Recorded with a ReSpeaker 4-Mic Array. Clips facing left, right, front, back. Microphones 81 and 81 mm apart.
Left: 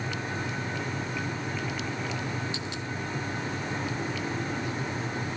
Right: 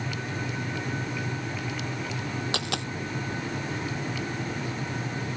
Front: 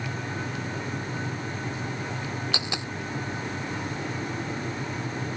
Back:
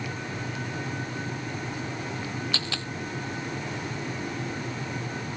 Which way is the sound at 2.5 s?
75° right.